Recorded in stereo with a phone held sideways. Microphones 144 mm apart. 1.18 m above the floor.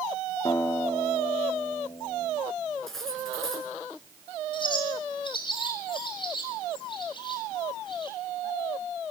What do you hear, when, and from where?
0.5 s a guitar: 25° left (ahead or behind), 3 m
2.9 s cutlery clinking: centre (ahead or behind), 9 m
4.5 s a bird: 35° left (ahead or behind), 7 m